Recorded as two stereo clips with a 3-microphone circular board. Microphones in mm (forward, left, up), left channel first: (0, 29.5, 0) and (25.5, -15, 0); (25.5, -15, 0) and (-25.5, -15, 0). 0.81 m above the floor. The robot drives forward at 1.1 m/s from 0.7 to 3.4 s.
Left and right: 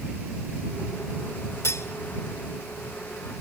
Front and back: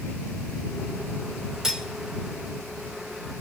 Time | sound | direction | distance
1.6 | cutlery clinking | 100° left | 1.6 m